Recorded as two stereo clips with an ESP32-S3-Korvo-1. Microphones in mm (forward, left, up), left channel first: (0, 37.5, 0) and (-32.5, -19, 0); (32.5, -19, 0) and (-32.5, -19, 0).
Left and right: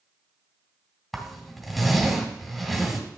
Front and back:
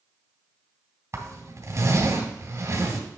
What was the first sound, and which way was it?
A zipper, 150° left.